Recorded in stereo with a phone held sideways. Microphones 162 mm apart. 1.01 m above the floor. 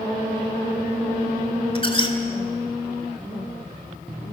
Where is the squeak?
35° left (ahead or behind), 2.5 m.